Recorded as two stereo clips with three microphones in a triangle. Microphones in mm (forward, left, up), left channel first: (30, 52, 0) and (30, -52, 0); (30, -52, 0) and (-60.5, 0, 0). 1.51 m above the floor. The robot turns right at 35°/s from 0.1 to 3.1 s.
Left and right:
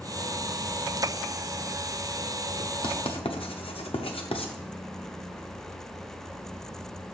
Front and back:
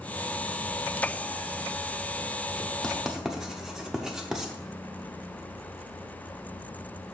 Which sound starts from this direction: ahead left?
Writing, at 2.8 s.